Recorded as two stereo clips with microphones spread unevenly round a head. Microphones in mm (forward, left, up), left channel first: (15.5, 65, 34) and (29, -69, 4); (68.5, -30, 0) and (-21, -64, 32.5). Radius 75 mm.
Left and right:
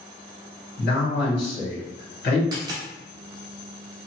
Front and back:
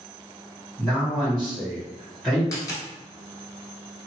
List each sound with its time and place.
0.8 s a man speaking: 105° left, 1.7 m
2.5 s a dropped coin: 30° right, 1.0 m